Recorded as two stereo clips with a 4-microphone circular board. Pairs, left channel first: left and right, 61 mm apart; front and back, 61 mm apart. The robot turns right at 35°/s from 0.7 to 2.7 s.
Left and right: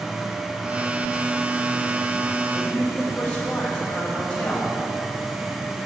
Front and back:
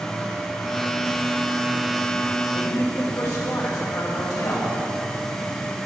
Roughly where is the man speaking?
Ahead.